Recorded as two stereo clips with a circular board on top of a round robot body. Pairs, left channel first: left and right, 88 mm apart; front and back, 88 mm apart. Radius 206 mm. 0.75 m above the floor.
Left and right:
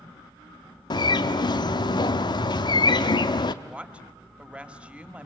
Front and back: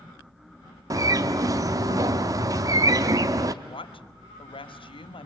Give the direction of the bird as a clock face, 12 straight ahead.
8 o'clock.